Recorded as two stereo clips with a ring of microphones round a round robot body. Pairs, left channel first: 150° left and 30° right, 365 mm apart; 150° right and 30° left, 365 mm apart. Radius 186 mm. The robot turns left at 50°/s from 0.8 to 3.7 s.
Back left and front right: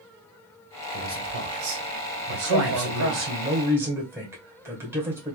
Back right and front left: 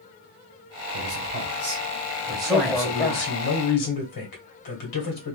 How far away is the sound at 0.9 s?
About 2.5 m.